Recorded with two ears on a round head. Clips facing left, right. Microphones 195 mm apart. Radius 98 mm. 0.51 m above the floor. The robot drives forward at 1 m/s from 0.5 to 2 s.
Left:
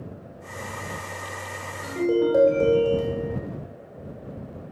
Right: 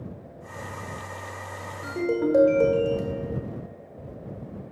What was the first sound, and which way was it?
A ringtone, 10° right (ahead or behind).